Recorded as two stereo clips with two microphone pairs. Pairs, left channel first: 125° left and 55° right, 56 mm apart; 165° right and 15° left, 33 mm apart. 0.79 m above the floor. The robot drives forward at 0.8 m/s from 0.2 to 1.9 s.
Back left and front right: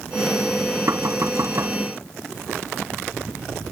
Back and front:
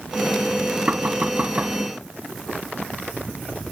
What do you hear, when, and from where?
0.9 s knocking: 30° right; by 1.8 s 35° right